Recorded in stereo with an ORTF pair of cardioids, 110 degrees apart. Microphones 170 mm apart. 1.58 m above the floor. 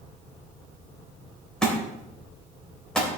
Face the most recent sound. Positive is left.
turn(degrees=5)